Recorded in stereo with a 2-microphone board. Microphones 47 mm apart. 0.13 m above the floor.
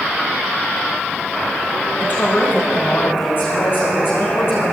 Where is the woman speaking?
40° left (ahead or behind), 9 m; by 4.7 s 50° left (ahead or behind), 8 m.